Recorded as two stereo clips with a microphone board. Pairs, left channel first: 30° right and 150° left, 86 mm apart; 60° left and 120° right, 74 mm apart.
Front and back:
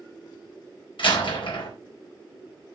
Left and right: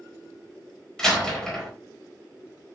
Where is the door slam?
20° right, 4.5 m.